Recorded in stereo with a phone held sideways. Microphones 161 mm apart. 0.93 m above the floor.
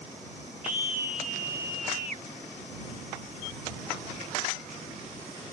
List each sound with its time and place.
0.6 s a scream: 65° right (ahead or behind)